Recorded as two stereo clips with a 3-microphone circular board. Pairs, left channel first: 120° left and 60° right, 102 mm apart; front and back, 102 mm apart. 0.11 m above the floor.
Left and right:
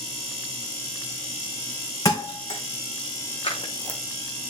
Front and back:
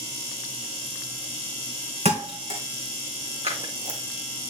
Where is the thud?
175° left, 3 m.